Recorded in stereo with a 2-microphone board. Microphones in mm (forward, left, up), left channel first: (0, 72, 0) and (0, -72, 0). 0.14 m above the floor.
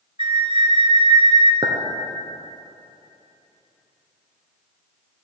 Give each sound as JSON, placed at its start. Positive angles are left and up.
{"t": 0.2, "sound": "a flute", "side_deg": -40, "distance_m": 0.7}
{"t": 1.6, "sound": "a clink", "side_deg": -35, "distance_m": 1.4}